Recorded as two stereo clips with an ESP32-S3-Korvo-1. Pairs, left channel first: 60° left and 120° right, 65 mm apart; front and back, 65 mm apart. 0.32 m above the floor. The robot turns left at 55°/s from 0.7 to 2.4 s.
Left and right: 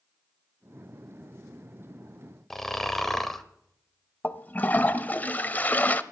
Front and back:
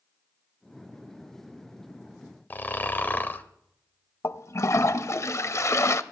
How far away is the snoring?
About 0.8 m.